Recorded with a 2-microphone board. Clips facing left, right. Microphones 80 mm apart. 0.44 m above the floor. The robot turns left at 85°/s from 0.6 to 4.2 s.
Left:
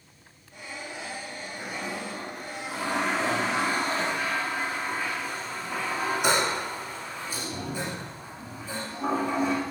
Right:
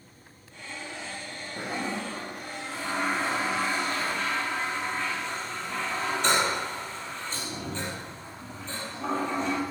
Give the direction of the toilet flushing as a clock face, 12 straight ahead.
4 o'clock.